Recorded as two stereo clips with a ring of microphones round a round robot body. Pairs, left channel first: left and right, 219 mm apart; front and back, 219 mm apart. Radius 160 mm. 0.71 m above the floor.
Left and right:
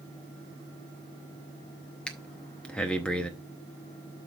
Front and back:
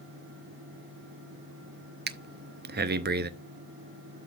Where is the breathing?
175° left, 0.6 m.